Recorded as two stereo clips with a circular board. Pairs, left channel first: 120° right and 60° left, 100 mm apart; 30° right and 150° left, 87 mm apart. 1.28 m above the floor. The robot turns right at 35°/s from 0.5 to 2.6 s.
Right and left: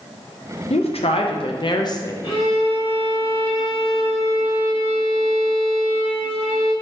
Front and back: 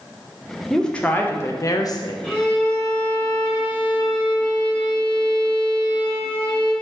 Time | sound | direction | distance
0.7 | a woman speaking | 115° right | 0.6 m
2.2 | a violin | 110° right | 2.0 m